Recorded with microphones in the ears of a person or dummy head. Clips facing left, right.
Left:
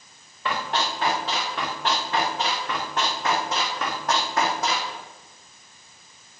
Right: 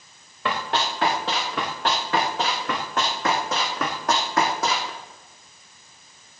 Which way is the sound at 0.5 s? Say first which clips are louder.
Right 1 dB; 60° right (ahead or behind).